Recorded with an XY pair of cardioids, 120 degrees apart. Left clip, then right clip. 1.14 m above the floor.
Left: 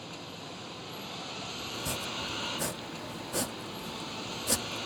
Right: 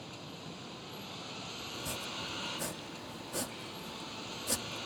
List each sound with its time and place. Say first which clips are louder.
0.0 s a vehicle: left 4 dB; 25° left
1.7 s chopping: left 4 dB; 30° left